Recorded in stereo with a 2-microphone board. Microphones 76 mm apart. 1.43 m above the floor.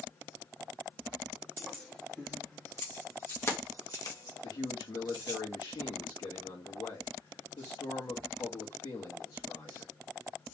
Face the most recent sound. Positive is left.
turn(degrees=85)